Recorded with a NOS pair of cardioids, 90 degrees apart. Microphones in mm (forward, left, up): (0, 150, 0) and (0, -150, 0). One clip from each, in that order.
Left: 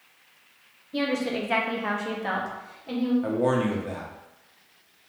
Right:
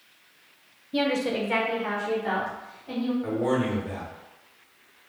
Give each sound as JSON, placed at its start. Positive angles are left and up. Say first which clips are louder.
{"t": 0.9, "sound": "a woman speaking", "louder": "right 2 dB", "azimuth_deg": -20, "distance_m": 0.9}
{"t": 3.2, "sound": "a man speaking", "louder": "left 1 dB", "azimuth_deg": 30, "distance_m": 1.4}